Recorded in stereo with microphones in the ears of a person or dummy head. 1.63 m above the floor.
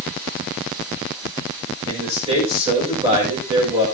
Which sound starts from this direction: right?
A man speaking, at 1.9 s.